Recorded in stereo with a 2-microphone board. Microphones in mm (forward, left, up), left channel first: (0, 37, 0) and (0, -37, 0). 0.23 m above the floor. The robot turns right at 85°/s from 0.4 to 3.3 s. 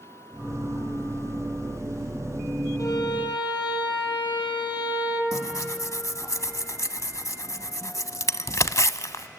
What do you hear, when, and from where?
2.8 s a violin: 50° left, 4 m; by 5.2 s 95° left, 4 m
5.3 s tearing paper: 45° left (ahead or behind), 0.6 m